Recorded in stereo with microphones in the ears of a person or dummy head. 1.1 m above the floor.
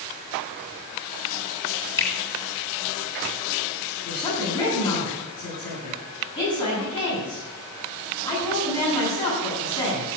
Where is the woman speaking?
25° left (ahead or behind), 9.5 m.